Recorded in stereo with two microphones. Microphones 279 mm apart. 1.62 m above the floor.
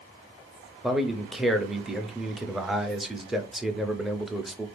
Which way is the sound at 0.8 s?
Centre (ahead or behind).